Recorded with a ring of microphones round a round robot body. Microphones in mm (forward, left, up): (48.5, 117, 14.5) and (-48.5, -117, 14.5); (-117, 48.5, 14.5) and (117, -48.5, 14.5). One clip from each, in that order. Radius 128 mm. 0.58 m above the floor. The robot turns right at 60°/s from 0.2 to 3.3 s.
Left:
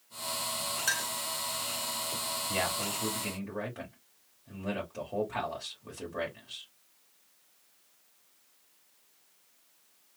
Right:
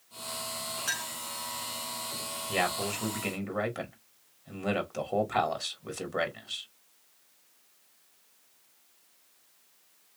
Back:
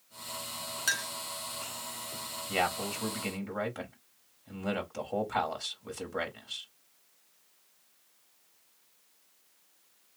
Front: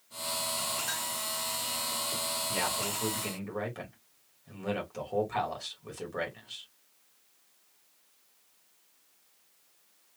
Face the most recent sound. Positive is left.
turn(degrees=-120)